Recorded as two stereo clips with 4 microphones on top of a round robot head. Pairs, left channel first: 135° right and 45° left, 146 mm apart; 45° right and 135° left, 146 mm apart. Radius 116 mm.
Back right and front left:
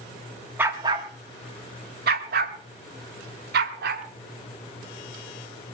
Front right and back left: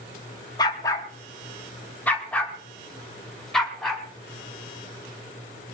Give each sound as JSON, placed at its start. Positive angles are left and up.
{"t": 0.6, "sound": "a dog barking", "azimuth_deg": -20, "distance_m": 1.0}